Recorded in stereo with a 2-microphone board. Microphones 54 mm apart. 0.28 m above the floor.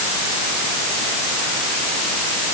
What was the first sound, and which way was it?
Only background noise.